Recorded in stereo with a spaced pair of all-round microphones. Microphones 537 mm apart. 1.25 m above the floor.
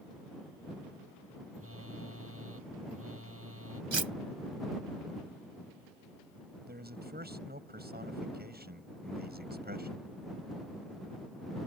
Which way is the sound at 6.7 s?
15° right (ahead or behind).